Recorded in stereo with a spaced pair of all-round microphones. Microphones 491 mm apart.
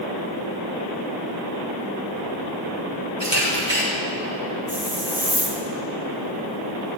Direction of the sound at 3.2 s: 85° right.